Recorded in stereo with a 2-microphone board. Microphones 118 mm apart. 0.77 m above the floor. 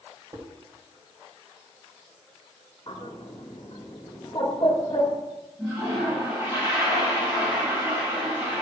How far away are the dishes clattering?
About 2 m.